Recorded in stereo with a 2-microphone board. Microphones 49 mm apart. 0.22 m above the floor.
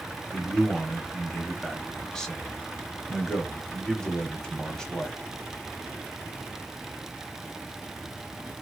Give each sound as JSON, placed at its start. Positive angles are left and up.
{"t": 0.3, "sound": "a man speaking", "side_deg": 10, "distance_m": 0.9}